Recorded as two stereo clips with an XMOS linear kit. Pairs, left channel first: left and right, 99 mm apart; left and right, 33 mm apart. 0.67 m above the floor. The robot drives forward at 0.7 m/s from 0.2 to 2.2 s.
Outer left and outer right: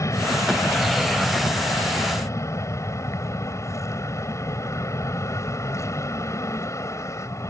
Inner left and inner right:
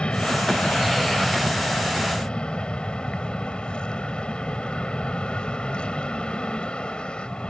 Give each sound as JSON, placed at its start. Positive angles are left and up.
{"t": 0.0, "sound": "an aircraft", "side_deg": 30}